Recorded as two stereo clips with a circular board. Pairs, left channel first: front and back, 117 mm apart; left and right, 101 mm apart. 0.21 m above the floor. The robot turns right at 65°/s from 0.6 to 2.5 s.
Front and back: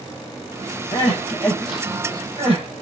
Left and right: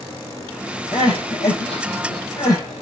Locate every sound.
0.9 s crying: 40° left, 9.5 m; by 2.8 s 145° left, 9.5 m